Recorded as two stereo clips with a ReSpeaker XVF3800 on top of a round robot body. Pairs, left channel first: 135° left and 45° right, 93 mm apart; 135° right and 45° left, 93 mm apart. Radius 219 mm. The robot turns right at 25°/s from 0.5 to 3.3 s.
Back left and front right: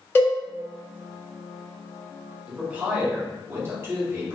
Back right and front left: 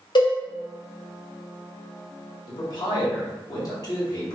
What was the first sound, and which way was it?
A cowbell, 155° right.